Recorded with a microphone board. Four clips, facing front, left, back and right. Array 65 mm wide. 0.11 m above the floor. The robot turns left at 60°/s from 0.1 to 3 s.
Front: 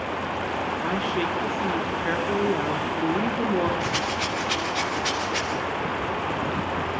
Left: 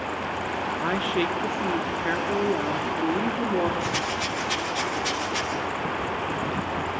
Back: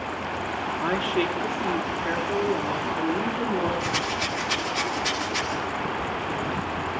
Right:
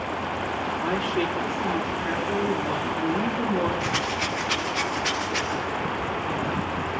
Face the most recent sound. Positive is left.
turn(degrees=-60)